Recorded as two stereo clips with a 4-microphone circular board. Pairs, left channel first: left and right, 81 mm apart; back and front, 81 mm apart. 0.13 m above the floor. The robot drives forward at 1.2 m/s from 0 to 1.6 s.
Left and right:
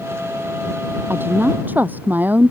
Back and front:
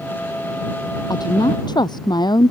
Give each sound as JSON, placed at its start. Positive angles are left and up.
{"t": 1.1, "sound": "a woman speaking", "azimuth_deg": -155}